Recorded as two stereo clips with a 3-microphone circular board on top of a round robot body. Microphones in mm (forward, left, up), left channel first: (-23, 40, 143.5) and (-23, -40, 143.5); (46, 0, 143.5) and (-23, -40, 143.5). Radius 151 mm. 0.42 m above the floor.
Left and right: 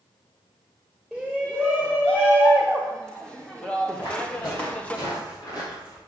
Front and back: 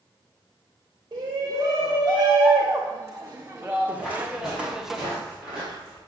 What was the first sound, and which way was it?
A shout, 175° left.